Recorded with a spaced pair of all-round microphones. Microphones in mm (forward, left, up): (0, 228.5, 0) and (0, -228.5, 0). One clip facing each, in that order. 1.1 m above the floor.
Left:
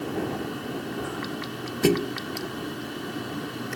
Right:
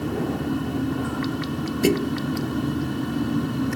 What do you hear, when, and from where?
0.0 s a fan: 65° right (ahead or behind)
1.8 s a thud: 5° left (ahead or behind)